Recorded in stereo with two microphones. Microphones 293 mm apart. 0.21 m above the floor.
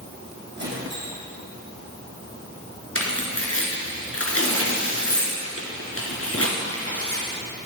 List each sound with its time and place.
0.6 s a squeak: 40° right (ahead or behind), 3 m
3.0 s tearing paper: 50° left (ahead or behind), 2 m